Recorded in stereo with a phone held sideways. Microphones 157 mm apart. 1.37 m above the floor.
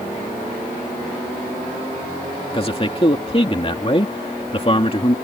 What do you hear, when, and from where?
2.5 s a man speaking: 35° left (ahead or behind)